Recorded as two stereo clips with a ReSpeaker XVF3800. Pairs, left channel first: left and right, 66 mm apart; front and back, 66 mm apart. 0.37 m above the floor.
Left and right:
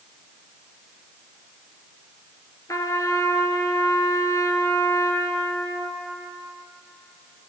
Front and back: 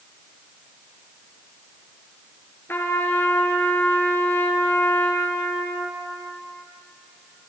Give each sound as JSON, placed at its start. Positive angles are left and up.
{"t": 2.7, "sound": "a trumpet", "azimuth_deg": 55, "distance_m": 1.4}